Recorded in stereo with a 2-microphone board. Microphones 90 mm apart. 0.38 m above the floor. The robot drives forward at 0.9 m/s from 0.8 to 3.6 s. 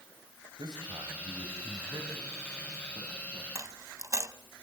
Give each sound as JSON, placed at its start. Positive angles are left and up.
{"t": 0.6, "sound": "a man speaking", "side_deg": -60, "distance_m": 1.9}
{"t": 3.5, "sound": "a dropped coin", "side_deg": -35, "distance_m": 0.8}